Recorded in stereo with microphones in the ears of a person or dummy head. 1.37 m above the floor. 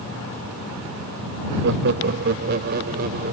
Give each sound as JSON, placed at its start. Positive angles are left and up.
{"t": 1.6, "sound": "laughter", "side_deg": -65}